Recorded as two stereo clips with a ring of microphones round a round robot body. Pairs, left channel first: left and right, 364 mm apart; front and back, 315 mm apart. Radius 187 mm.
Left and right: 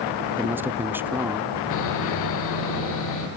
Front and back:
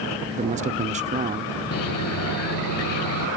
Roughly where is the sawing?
Ahead left.